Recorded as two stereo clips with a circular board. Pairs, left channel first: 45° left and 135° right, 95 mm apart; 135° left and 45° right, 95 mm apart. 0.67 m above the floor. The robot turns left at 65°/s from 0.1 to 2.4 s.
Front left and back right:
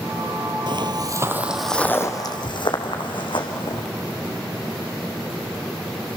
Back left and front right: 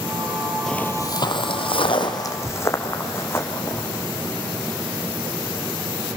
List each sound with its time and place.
0.7 s footsteps: 140° right, 1.0 m; by 3.8 s 70° left, 3.5 m